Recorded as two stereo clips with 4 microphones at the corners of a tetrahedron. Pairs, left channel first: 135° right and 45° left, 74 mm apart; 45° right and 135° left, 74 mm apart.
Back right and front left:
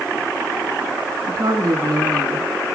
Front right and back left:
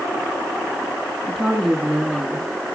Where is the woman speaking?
55° left, 1.9 m.